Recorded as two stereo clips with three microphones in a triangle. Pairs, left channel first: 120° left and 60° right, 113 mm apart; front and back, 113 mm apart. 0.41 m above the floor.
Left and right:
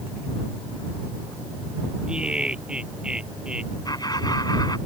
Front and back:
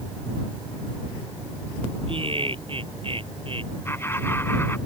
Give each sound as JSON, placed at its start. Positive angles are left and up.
{"t": 2.1, "sound": "laughter", "azimuth_deg": -140}
{"t": 3.9, "sound": "laughter", "azimuth_deg": 70}